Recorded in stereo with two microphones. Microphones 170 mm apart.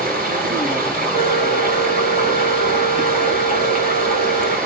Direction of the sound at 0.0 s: 55° right (ahead or behind).